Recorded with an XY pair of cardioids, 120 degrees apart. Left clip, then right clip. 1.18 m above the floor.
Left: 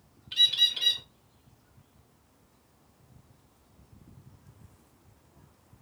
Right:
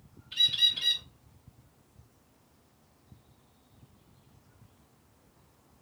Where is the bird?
40° left, 1.0 m.